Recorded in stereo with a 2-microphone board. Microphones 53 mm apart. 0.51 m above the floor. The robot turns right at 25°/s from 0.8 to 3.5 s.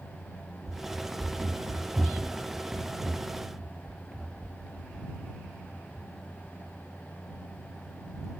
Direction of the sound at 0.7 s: 65° right (ahead or behind).